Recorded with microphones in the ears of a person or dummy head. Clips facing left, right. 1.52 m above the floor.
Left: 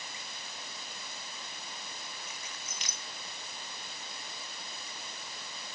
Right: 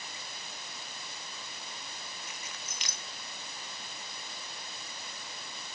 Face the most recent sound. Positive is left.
turn(degrees=-60)  # may be behind; listen again after turning